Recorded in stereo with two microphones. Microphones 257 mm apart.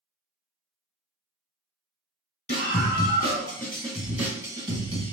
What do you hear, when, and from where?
2.5 s a scream: 30° left (ahead or behind), 1.5 m; by 5.1 s 25° right (ahead or behind), 1.5 m